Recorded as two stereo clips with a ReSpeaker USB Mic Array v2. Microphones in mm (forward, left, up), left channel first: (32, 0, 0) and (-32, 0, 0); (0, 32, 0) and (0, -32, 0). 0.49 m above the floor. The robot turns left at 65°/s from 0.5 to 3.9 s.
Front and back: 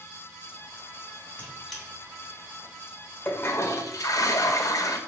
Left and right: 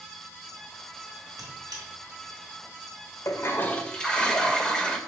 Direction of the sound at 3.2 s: 55° left.